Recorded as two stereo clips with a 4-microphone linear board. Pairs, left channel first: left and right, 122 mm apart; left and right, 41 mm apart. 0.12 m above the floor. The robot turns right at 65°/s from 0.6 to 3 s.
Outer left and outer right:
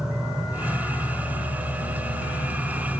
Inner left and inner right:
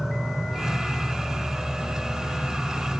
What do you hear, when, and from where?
0.0 s an insect: 5° right, 0.8 m; by 3.0 s 150° left, 0.8 m